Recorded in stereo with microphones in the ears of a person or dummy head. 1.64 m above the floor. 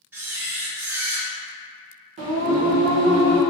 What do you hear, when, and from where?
0.1 s a camera shutter: 10° right (ahead or behind), 0.6 m
2.2 s singing: 35° right (ahead or behind), 0.6 m